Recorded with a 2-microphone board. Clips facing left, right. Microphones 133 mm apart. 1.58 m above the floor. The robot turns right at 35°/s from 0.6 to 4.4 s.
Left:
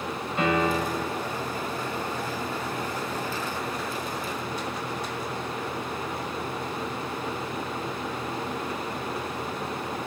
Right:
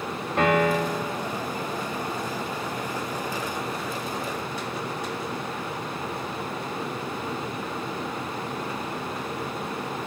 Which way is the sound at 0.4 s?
60° right (ahead or behind).